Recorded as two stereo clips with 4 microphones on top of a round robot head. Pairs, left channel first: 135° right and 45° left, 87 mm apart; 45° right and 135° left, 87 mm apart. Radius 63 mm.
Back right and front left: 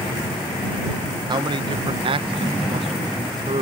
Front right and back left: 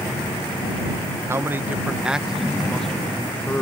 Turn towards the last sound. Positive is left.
turn(degrees=30)